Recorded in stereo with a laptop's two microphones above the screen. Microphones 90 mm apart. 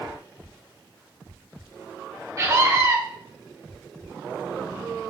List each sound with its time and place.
2.4 s a scream: 35° right (ahead or behind), 3 m